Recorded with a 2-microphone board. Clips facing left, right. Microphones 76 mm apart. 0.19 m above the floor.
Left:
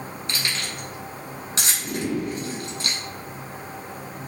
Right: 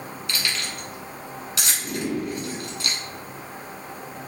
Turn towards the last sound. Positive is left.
turn(degrees=35)  # may be behind; listen again after turning